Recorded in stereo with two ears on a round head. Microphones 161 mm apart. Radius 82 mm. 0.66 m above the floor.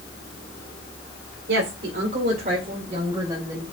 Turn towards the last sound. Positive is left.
turn(degrees=-15)  # may be behind; listen again after turning